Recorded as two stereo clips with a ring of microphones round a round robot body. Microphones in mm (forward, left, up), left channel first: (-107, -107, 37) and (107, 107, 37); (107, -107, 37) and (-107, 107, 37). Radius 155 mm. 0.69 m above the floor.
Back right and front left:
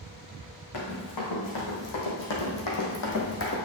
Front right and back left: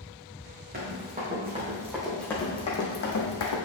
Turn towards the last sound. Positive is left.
turn(degrees=-80)